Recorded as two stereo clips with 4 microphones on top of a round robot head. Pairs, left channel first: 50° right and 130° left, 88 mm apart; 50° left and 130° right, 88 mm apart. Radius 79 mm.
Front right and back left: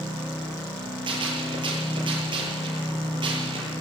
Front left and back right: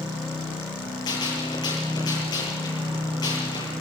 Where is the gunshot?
95° left, 8 m.